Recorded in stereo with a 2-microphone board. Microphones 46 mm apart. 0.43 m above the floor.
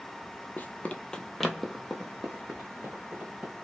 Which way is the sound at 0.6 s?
45° left (ahead or behind).